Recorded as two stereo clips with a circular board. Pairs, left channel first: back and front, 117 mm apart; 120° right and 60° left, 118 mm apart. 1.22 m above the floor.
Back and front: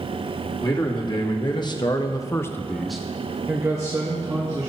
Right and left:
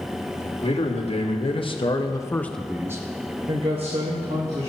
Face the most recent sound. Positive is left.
turn(degrees=55)